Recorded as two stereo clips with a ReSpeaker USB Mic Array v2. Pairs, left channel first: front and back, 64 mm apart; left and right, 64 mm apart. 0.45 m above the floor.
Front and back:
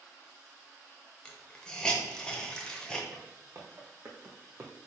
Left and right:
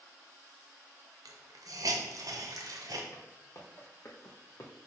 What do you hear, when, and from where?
1.2 s a hiss: 80° right, 0.7 m
3.1 s footsteps: 135° left, 1.8 m; by 4.7 s 130° left, 1.0 m